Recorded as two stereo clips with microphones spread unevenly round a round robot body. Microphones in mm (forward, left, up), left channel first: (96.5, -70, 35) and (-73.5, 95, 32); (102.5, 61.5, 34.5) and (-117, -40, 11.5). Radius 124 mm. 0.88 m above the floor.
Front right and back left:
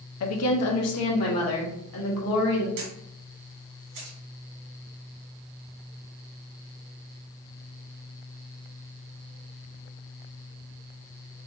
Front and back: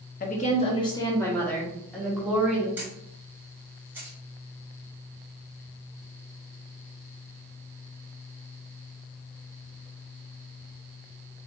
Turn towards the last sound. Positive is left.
turn(degrees=120)